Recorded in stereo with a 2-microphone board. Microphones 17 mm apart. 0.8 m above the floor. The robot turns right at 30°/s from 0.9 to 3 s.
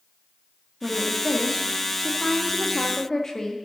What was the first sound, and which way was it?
A woman speaking, 15° right.